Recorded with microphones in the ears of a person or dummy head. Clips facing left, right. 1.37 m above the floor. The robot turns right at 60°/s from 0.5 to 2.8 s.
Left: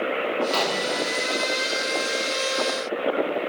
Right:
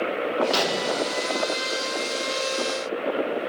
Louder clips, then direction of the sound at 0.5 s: Right 1 dB; 20° right.